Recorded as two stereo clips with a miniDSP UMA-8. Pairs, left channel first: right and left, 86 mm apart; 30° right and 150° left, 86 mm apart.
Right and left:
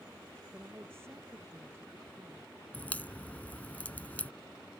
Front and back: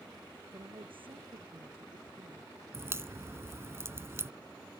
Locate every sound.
0.5 s a woman speaking: 150° left
2.7 s a crack: 160° right